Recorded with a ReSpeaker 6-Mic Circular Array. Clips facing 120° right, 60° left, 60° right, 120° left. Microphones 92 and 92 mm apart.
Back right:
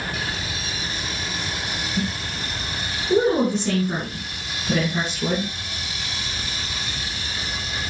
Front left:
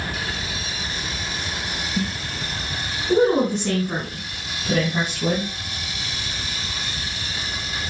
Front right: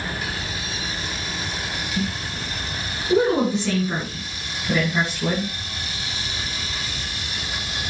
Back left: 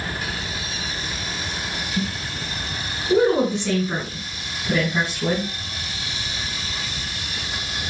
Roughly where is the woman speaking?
Ahead left.